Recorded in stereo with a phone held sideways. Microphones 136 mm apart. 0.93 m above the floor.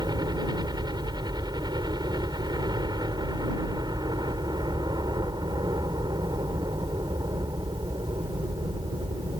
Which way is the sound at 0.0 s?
30° right (ahead or behind).